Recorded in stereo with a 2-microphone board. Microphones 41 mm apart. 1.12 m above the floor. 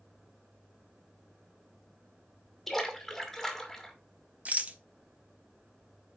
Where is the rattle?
35° right (ahead or behind), 1.0 m.